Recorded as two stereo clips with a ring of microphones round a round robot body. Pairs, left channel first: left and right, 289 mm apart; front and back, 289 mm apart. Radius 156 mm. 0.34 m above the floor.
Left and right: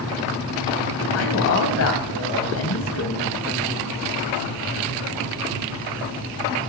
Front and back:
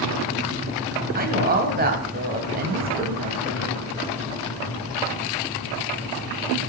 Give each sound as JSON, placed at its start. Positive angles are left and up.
{"t": 1.1, "sound": "a woman speaking", "azimuth_deg": 125, "distance_m": 2.5}